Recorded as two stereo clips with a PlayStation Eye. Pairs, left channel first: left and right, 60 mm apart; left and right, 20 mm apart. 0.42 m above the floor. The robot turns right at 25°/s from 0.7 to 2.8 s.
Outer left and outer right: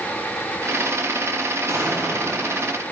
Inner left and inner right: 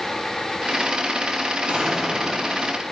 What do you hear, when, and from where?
1.7 s an explosion: 65° right (ahead or behind), 2.5 m; by 2.6 s 45° right (ahead or behind), 2.5 m